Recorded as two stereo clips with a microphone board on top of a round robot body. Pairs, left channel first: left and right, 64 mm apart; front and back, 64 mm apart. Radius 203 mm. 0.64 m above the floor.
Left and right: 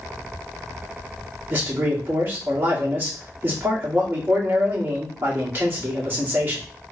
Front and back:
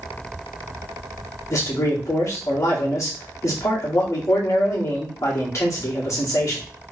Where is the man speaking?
40° right, 2.5 m.